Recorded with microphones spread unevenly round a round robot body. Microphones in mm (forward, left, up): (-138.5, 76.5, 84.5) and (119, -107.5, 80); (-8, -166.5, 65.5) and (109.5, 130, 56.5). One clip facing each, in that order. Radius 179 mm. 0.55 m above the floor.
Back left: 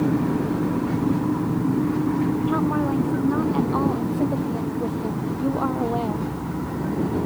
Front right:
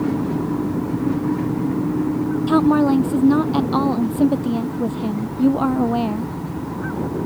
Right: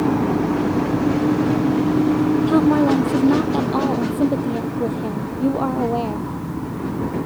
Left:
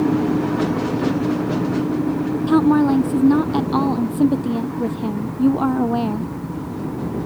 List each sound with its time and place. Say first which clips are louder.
2.5 s a woman speaking: front right 7 dB, left 4 dB; straight ahead; by 6.3 s 10° left